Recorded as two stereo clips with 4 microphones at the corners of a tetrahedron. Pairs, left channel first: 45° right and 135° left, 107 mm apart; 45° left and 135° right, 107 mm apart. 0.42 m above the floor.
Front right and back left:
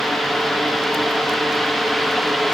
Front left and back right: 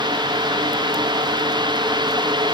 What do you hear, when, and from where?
Only background noise.